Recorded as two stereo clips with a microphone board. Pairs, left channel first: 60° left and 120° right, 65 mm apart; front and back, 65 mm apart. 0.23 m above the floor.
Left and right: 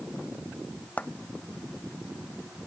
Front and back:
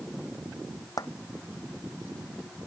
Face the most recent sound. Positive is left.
turn(degrees=-5)